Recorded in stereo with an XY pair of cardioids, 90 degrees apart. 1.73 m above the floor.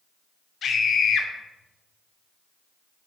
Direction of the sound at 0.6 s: 60° left.